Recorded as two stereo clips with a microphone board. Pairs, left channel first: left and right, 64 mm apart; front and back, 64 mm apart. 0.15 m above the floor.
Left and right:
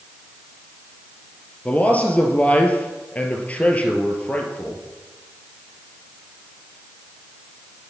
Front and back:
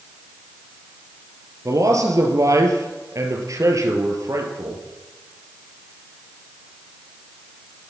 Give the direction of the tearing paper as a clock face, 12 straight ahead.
No tearing paper in this recording.